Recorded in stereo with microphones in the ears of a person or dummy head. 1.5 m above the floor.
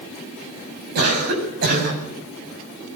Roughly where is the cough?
Right.